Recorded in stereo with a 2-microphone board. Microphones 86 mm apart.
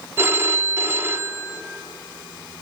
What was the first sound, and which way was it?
A phone ringing, 30° right (ahead or behind).